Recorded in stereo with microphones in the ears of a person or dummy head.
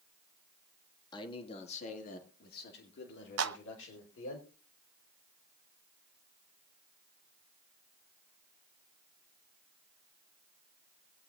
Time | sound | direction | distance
1.1 | a man speaking | 25° left (ahead or behind) | 1.8 m
3.4 | a clap | 75° right (ahead or behind) | 0.7 m